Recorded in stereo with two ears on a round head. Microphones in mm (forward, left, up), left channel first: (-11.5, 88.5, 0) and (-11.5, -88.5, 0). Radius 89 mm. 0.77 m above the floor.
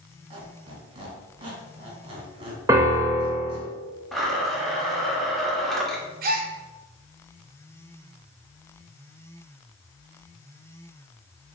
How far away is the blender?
About 0.7 m.